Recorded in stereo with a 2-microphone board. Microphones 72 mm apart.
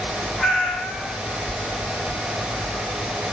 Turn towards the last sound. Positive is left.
turn(degrees=0)  # may be behind; listen again after turning